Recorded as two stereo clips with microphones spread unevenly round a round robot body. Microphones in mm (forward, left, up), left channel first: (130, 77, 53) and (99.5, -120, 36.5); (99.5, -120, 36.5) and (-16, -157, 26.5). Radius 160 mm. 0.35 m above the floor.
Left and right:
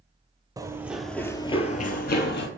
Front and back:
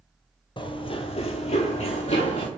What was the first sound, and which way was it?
Running footsteps, 25° right.